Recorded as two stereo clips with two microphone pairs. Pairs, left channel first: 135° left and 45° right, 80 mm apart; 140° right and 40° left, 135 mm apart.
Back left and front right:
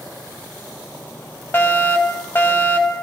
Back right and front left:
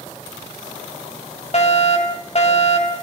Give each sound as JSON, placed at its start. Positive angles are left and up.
{"t": 1.5, "sound": "a fire alarm", "azimuth_deg": -170, "distance_m": 4.5}